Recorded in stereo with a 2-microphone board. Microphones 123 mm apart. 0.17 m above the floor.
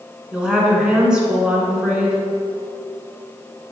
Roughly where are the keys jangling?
No keys jangling in this recording.